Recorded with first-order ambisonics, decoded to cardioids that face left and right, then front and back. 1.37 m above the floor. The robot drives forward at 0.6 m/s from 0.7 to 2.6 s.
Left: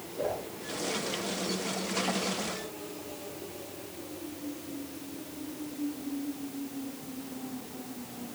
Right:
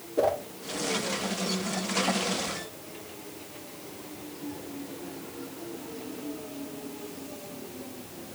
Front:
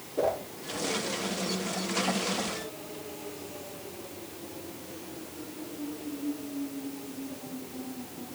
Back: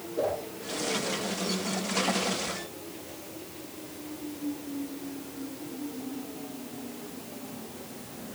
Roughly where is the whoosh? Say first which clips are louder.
Right 8 dB, front 1 dB; right.